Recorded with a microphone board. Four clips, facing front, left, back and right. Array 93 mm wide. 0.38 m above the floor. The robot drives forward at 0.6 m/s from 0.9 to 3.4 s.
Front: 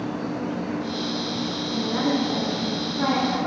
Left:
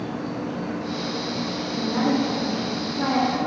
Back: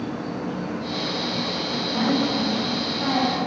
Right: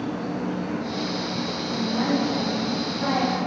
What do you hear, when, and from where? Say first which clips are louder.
0.0 s an insect: right 1 dB, front 1 dB; 45° right, 3.5 m; by 3.5 s 70° right, 3 m
1.7 s a woman speaking: left 1 dB, even; 20° left, 4.5 m; by 3.5 s 25° left, 3.5 m